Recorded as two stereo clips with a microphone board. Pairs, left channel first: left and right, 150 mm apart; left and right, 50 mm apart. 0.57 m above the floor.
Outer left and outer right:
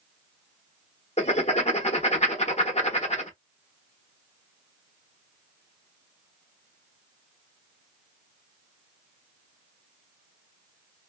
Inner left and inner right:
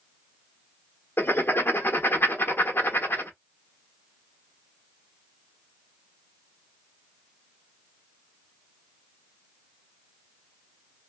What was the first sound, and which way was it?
Writing, 50° left (ahead or behind).